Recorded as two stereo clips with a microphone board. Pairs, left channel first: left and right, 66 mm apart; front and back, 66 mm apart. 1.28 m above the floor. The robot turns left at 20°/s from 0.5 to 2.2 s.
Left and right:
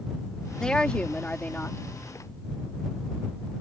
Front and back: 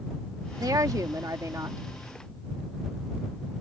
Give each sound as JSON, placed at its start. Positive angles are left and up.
{"t": 0.6, "sound": "a woman speaking", "azimuth_deg": 170}